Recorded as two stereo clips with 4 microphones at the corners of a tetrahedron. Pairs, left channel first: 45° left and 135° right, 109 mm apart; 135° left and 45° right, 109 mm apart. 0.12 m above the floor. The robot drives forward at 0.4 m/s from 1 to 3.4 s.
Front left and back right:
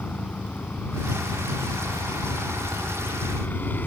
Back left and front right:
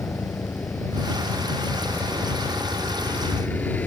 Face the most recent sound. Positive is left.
turn(degrees=90)